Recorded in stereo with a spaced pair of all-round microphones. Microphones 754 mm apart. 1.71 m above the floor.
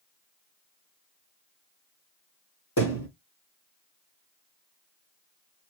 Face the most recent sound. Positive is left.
turn(degrees=20)  # may be behind; listen again after turning